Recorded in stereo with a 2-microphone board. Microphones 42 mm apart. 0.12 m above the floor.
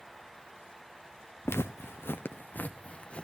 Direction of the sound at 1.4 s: 85° left.